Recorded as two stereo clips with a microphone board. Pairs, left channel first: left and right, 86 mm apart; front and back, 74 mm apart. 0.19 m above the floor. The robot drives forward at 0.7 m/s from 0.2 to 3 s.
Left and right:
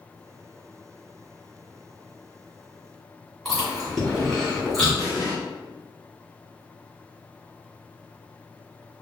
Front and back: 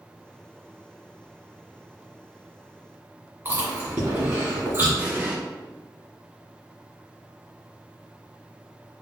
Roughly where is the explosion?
Behind right.